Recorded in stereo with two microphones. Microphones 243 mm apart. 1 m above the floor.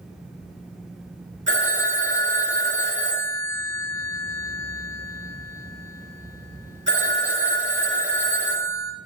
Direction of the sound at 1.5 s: 50° right (ahead or behind).